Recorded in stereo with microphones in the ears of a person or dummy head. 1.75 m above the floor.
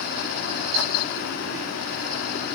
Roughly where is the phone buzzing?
No phone buzzing in this recording.